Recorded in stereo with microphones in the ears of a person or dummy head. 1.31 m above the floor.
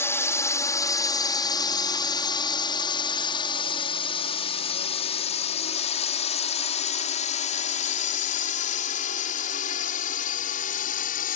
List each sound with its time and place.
0.0 s a drone: 20° left (ahead or behind); by 11.4 s 55° left (ahead or behind)